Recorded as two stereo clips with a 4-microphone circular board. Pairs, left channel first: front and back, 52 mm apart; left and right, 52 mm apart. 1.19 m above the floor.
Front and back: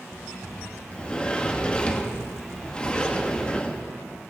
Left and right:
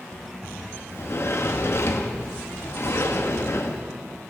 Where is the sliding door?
70° left, 0.9 m.